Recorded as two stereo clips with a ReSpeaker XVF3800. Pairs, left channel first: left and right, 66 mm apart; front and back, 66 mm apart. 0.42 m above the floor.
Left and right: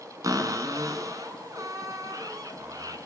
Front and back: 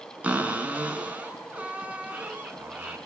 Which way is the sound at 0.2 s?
110° right.